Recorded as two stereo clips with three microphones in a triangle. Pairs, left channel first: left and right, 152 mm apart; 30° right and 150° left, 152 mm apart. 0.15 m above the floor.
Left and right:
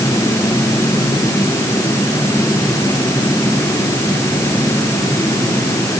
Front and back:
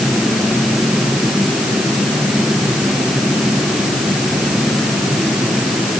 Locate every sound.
Only background noise.